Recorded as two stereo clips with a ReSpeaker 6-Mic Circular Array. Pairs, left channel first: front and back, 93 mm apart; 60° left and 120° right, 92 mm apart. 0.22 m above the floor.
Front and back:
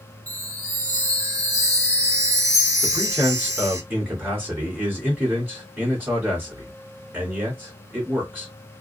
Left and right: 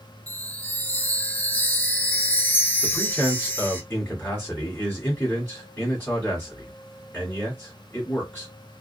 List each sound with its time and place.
0.3 s a chime: 130° left, 0.7 m
2.8 s a man speaking: 120° left, 1.3 m